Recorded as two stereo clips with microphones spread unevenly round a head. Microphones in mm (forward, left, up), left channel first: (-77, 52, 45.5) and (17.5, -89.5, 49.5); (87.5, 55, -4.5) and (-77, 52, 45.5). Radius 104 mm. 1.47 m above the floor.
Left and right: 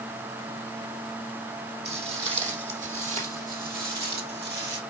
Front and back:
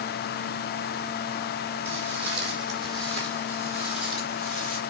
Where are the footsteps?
105° right, 4 m; by 4.8 s 55° right, 2.5 m.